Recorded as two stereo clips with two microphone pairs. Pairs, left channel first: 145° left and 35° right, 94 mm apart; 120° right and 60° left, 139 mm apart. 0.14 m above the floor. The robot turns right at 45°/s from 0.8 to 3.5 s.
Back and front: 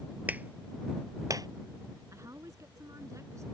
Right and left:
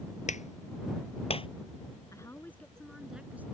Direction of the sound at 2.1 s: 65° right.